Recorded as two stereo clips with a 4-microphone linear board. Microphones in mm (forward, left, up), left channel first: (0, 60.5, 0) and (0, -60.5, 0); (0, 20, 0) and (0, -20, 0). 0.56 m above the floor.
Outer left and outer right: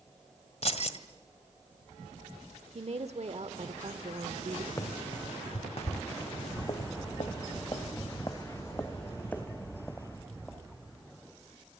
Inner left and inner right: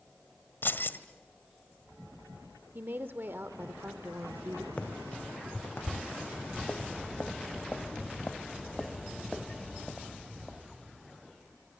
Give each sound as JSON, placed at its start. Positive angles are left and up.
{"t": 0.6, "sound": "keys jangling", "side_deg": 60, "distance_m": 1.7}
{"t": 2.8, "sound": "a woman speaking", "side_deg": -60, "distance_m": 1.3}
{"t": 4.8, "sound": "running footsteps", "side_deg": 25, "distance_m": 2.5}
{"t": 6.2, "sound": "footsteps", "side_deg": 60, "distance_m": 2.5}